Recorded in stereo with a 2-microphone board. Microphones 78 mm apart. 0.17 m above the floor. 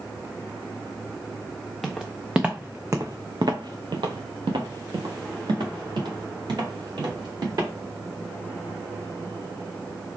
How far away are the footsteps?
About 1.0 m.